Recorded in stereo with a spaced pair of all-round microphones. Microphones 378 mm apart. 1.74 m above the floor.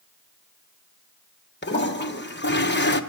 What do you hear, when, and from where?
1.6 s a toilet flushing: 30° left (ahead or behind), 1.2 m